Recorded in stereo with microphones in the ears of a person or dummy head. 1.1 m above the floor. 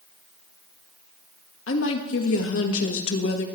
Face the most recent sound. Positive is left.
turn(degrees=70)  # may be behind; listen again after turning